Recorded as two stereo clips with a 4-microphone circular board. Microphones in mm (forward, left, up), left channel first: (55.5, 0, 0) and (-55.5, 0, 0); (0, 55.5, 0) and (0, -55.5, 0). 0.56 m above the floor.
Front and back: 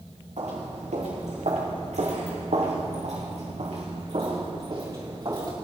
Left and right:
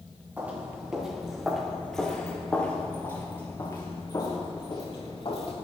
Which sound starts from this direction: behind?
Footsteps, at 0.4 s.